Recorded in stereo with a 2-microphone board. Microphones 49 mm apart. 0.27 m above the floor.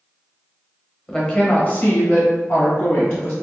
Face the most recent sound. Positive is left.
turn(degrees=45)  # may be behind; listen again after turning